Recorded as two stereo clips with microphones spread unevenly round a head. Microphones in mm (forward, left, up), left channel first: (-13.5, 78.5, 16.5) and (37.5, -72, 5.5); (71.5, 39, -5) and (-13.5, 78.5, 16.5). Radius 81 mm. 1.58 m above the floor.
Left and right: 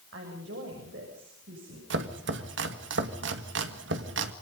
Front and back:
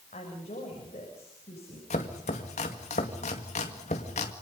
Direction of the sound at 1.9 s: 60° right.